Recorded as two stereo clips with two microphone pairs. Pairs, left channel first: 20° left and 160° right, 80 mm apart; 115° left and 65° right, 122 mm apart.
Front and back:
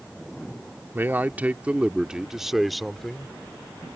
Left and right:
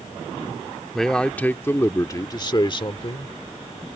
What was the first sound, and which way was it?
A man speaking, 155° right.